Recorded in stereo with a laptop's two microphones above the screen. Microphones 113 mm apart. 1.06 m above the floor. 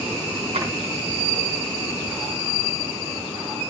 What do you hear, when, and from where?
0.5 s a drawer: 75° right (ahead or behind), 4.5 m